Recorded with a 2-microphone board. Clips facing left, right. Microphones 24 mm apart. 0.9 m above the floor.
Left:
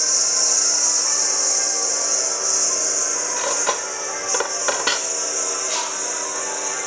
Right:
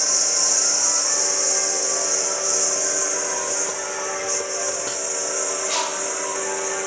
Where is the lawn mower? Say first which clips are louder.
Left 1 dB; 5° left (ahead or behind); by 6.9 s 25° left (ahead or behind).